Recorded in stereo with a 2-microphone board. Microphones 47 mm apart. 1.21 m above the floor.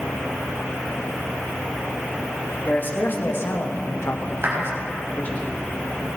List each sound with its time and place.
2.6 s a man speaking: 40° left (ahead or behind), 2.5 m; by 5.4 s 35° left (ahead or behind), 2.5 m
4.4 s a clap: 60° right (ahead or behind), 5 m